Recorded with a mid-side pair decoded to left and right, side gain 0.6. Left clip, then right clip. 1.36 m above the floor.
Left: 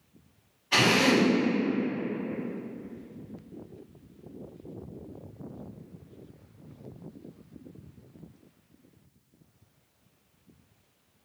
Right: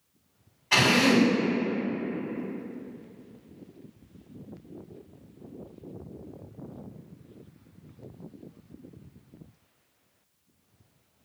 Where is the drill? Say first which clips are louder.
Right 1 dB; 60° right, 1.7 m.